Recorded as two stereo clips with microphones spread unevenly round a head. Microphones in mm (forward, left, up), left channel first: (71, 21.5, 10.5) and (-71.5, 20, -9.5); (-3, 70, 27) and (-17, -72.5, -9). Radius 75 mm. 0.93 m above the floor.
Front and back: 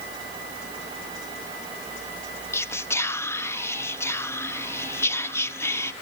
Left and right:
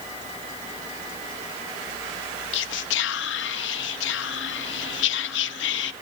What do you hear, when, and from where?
2.5 s whispering: 75° left, 0.9 m